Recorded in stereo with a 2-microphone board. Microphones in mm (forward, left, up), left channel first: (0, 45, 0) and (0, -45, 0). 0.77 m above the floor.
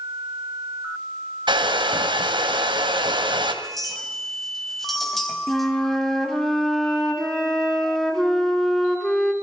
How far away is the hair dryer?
About 2 m.